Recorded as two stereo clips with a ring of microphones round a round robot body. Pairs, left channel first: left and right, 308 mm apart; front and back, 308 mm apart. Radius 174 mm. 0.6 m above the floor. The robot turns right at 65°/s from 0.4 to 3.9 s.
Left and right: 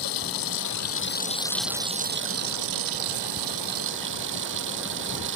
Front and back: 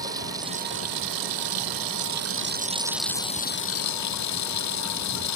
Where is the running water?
100° left; by 5.4 s 30° right.